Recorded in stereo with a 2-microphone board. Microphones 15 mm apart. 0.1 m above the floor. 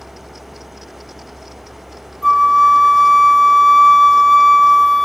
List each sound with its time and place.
2.2 s a flute: 20° left (ahead or behind), 0.9 m